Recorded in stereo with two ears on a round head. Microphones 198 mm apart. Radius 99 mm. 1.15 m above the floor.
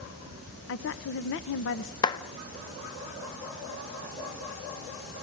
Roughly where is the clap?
Left.